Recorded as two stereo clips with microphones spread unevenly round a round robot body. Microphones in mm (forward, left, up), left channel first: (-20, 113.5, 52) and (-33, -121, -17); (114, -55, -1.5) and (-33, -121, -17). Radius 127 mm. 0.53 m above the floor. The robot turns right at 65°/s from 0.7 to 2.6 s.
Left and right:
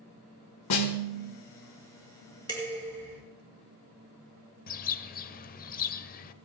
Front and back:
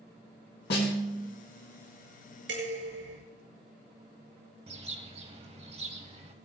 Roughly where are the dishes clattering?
Behind.